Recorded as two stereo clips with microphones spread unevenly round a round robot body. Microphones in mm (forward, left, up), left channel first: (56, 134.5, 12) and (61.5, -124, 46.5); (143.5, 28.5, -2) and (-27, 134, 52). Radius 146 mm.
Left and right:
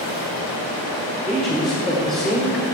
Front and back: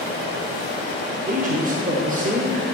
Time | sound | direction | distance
1.3 | a man speaking | 160° left | 1.1 m